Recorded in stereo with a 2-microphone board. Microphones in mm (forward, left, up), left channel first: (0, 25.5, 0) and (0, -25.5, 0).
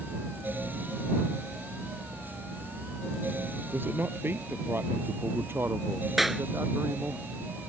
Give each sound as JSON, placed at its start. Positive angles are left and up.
{"t": 3.7, "sound": "a man speaking", "side_deg": -40}
{"t": 6.2, "sound": "a clap", "side_deg": -5}